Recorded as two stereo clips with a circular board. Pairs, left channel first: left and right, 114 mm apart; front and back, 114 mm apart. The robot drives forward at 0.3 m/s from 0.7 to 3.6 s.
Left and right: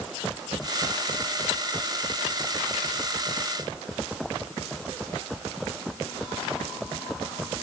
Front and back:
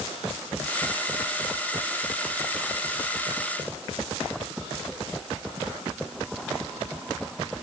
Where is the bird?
No bird in this recording.